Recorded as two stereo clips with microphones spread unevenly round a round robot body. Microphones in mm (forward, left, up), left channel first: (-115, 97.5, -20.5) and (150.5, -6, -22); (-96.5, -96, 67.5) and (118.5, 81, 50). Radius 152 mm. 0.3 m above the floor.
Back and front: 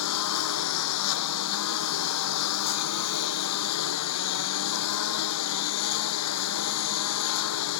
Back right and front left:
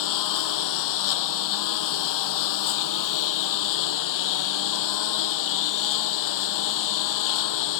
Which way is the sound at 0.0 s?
160° right.